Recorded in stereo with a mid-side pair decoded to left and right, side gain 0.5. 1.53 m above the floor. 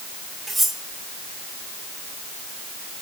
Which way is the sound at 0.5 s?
15° right.